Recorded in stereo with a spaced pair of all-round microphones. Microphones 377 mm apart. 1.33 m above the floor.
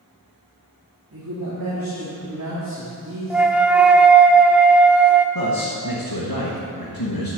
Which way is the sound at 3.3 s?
5° right (ahead or behind).